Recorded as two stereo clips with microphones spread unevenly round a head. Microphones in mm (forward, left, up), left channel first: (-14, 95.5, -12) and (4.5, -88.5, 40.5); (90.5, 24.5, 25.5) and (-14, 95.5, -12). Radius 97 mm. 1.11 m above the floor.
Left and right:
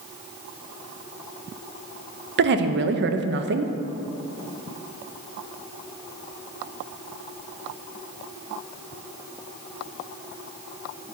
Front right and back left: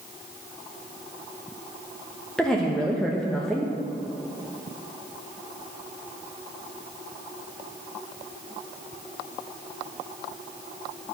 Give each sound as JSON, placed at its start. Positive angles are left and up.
{"t": 2.4, "sound": "a woman speaking", "azimuth_deg": -125, "distance_m": 0.7}